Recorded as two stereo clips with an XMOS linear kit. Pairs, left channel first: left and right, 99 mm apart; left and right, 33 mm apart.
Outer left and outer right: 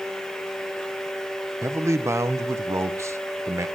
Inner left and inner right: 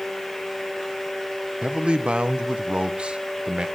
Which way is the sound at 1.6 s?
30° right (ahead or behind).